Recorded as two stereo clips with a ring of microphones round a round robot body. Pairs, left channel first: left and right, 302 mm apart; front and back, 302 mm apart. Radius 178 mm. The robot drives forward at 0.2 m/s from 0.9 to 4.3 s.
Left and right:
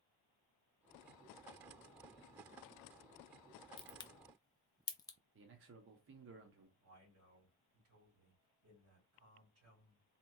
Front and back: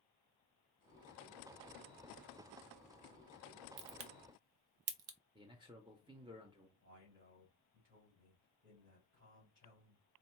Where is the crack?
165° left, 0.5 m; by 5.2 s 170° left, 0.6 m.